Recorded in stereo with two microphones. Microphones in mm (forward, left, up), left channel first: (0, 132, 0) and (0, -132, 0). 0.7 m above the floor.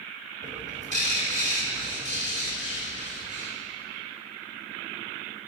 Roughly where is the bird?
Right.